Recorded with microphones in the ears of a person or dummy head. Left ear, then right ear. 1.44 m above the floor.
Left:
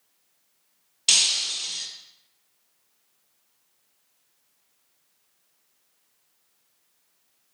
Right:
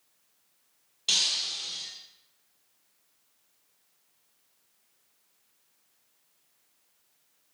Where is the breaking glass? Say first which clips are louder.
Left 5 dB; 25° left (ahead or behind), 2 m.